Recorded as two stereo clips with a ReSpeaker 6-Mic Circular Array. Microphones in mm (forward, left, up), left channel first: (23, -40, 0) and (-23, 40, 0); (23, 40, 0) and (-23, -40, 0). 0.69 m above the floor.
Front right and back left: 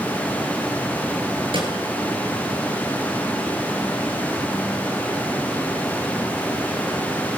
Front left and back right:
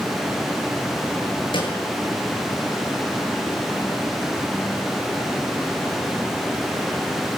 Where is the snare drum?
90° left, 9 m.